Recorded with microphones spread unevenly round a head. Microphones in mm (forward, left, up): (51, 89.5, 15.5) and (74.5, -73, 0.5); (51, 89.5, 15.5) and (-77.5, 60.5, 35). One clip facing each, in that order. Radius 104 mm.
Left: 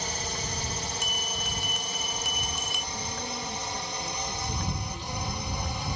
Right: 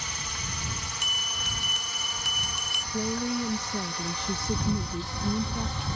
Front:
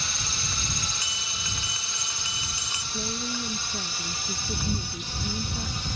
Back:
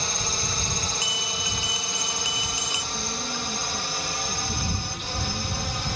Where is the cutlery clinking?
I don't hear cutlery clinking.